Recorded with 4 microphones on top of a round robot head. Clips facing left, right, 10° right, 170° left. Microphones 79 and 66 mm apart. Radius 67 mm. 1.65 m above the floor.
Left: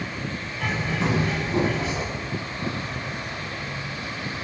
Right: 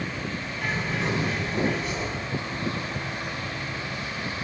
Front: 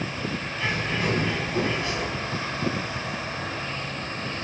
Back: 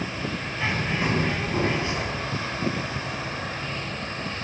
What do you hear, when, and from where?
0.6 s a bird: 100° left, 7 m